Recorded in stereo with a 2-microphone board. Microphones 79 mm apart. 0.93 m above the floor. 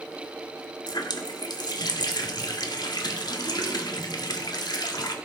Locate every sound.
0.9 s a running tap: 60° left (ahead or behind), 1.3 m